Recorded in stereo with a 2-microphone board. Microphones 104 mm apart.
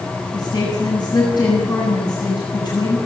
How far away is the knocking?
I don't hear knocking.